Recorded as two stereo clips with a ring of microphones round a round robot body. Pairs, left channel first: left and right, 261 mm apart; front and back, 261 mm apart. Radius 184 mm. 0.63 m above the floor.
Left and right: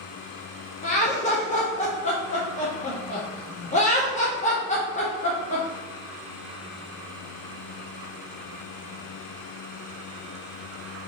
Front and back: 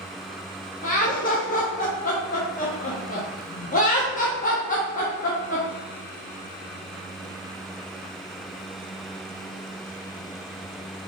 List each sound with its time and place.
0.8 s laughter: 40° left, 0.7 m